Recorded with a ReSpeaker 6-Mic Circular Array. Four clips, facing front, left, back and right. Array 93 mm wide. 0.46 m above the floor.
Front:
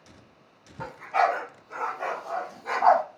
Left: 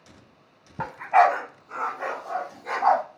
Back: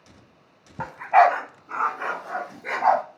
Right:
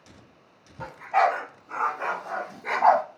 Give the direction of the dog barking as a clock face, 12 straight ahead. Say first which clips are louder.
Left 4 dB, back 8 dB; 8 o'clock.